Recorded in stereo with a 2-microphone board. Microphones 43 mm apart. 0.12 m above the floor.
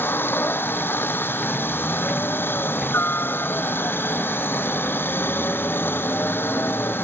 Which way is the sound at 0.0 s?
60° left (ahead or behind).